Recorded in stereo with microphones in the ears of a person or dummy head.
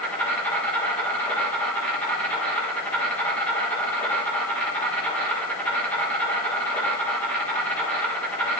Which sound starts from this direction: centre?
An insect, at 0.0 s.